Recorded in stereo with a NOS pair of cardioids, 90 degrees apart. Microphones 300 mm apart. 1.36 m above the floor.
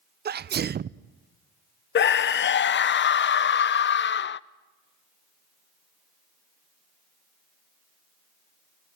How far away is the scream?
About 0.6 m.